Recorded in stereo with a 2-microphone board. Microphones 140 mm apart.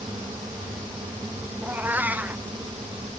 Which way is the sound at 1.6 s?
10° right (ahead or behind).